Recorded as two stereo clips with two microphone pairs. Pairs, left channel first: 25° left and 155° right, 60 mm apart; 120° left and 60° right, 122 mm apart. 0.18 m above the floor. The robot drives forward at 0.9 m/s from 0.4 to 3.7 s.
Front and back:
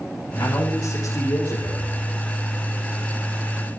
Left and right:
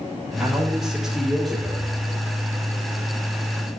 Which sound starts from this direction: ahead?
A man speaking, at 0.4 s.